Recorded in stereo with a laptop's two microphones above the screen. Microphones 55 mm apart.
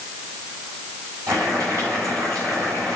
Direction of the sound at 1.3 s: 70° right (ahead or behind).